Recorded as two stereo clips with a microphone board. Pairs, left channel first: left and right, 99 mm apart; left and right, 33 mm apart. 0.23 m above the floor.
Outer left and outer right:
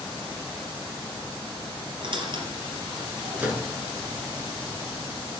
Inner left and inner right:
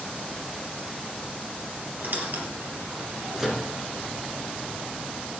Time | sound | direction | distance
2.0 | a squeak | 55° right (ahead or behind) | 3.5 m
3.4 | a microwave | 10° right (ahead or behind) | 4 m